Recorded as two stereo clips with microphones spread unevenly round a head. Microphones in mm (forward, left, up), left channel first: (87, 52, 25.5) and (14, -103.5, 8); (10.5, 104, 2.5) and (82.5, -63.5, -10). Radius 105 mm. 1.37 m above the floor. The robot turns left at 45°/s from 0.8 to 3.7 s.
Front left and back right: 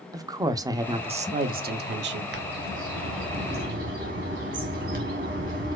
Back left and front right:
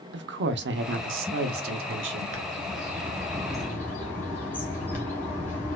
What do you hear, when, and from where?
0.1 s a woman speaking: 45° right, 0.5 m; by 2.2 s 110° right, 0.5 m
2.3 s a bird: 100° right, 0.9 m; by 5.8 s 165° right, 0.9 m